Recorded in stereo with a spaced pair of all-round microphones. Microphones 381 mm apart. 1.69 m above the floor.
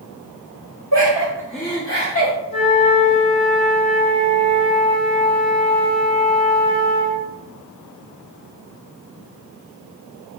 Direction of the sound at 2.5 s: 45° right (ahead or behind).